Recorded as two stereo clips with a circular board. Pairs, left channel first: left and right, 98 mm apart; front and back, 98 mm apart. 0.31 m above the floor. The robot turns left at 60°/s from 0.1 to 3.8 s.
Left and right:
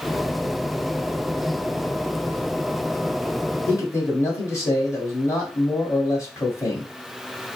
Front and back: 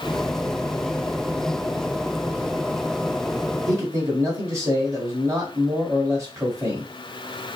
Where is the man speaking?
145° left, 1.7 m; by 6.9 s 135° left, 1.7 m.